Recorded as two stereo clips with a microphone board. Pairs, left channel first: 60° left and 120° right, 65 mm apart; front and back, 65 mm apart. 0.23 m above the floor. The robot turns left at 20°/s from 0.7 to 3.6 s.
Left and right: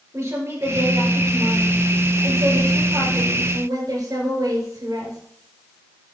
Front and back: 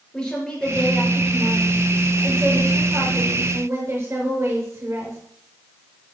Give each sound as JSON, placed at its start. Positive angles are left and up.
{"t": 0.1, "sound": "a woman speaking", "azimuth_deg": -75, "distance_m": 5.0}